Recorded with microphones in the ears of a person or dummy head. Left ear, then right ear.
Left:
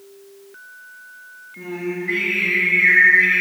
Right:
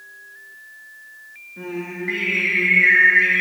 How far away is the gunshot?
I don't hear a gunshot.